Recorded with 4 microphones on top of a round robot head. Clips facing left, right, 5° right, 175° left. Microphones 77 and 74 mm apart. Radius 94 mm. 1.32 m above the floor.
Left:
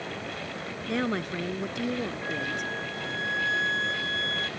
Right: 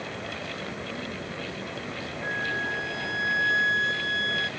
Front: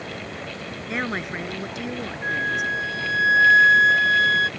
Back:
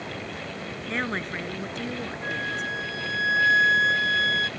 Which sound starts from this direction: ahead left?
A flute, at 2.2 s.